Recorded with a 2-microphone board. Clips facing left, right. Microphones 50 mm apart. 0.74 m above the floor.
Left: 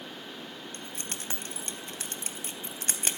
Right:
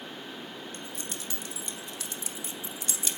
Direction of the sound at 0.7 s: 50° left (ahead or behind).